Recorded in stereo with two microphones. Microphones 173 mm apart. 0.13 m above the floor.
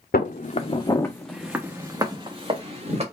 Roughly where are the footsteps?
Left.